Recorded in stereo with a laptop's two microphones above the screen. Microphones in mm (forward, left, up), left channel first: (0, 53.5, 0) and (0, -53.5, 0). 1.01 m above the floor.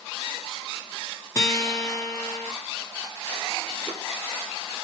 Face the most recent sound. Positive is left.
turn(degrees=30)  # may be behind; listen again after turning